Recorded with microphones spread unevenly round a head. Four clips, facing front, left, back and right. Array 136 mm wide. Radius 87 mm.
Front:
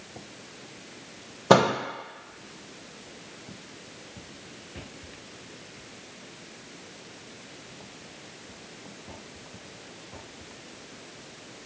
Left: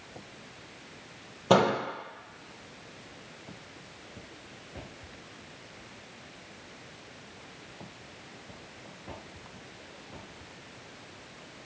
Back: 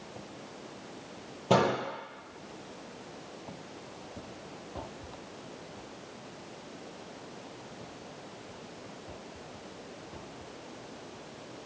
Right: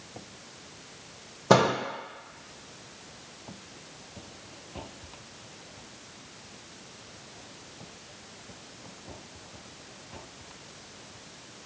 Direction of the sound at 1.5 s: 15° right.